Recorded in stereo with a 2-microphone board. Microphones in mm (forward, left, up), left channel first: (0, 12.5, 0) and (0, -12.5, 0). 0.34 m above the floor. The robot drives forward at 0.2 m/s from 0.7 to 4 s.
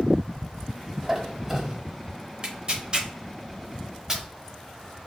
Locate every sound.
1.0 s a squeak: 10° right (ahead or behind), 0.9 m; by 1.8 s 15° right (ahead or behind), 0.8 m
2.4 s tearing paper: 40° right (ahead or behind), 0.7 m; by 4.2 s 30° right (ahead or behind), 0.8 m